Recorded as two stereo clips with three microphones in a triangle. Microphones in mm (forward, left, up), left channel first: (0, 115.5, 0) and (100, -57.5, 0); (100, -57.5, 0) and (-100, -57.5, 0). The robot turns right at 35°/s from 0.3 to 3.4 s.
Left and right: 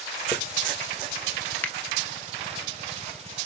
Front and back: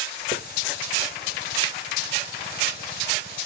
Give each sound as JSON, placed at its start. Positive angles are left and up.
{"t": 0.3, "sound": "a hiss", "azimuth_deg": 45, "distance_m": 1.2}
{"t": 1.6, "sound": "a finger snap", "azimuth_deg": 45, "distance_m": 0.9}